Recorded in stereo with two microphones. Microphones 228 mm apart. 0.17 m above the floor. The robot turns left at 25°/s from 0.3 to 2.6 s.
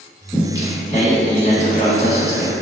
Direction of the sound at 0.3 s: 165° left.